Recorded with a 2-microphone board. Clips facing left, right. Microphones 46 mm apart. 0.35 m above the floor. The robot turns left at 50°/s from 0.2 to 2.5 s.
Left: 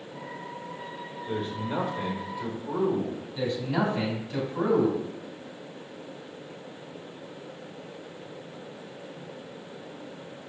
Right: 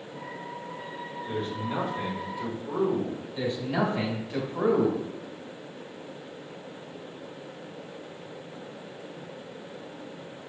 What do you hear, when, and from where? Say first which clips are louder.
1.3 s a man speaking: left 1 dB; 15° left (ahead or behind), 1.3 m; by 3.2 s 5° right (ahead or behind), 1.3 m
3.4 s a man speaking: even; 25° right (ahead or behind), 1.6 m